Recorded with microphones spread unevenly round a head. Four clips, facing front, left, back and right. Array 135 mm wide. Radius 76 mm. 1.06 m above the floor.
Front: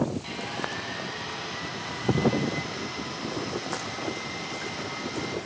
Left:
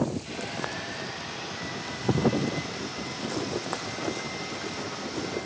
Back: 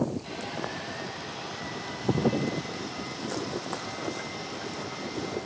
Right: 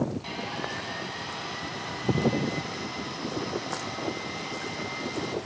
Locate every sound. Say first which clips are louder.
0.2 s sawing: even, front 1 dB; 60° right, 2 m